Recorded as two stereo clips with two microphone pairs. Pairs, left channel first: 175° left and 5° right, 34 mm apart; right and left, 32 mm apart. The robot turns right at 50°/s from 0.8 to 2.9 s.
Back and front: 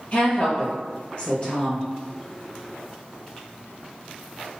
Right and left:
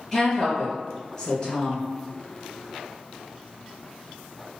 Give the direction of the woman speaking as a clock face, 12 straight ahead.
6 o'clock.